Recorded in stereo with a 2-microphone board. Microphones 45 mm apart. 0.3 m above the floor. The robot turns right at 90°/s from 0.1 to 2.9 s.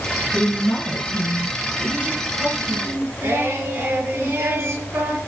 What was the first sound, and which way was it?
A woman speaking, 5° right.